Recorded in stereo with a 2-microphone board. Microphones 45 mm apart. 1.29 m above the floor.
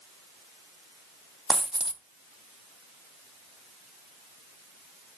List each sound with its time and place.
1.5 s a dropped coin: 15° right (ahead or behind), 0.9 m